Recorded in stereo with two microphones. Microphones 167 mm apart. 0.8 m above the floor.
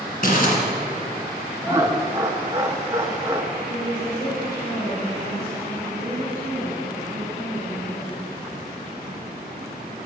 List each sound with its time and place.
0.2 s crumpling: 60° left (ahead or behind), 2.5 m
1.6 s laughter: 15° right (ahead or behind), 0.6 m
3.7 s a woman speaking: 50° left (ahead or behind), 3.5 m